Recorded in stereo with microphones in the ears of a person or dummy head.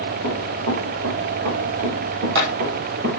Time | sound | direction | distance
0.2 | running footsteps | 70° right (ahead or behind) | 4.5 m